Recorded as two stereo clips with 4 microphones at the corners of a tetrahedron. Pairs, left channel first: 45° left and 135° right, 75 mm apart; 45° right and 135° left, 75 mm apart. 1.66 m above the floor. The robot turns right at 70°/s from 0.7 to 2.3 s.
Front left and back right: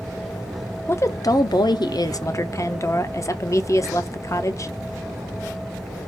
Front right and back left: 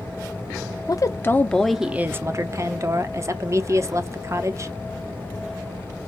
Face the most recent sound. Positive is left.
turn(degrees=85)